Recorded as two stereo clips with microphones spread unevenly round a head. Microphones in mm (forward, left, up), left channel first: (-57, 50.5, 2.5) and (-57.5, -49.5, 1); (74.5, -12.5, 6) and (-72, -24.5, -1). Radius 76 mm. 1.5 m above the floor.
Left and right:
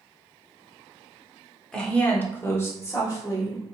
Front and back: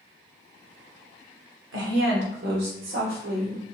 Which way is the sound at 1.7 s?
175° left.